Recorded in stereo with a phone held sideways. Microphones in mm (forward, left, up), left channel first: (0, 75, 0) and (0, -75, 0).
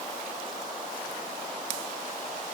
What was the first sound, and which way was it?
Only background noise.